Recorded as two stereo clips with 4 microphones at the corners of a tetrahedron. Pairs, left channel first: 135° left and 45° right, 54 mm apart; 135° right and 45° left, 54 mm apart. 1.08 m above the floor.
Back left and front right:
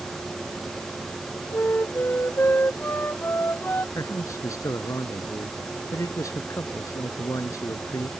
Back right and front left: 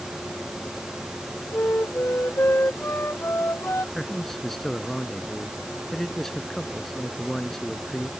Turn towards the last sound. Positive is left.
turn(degrees=140)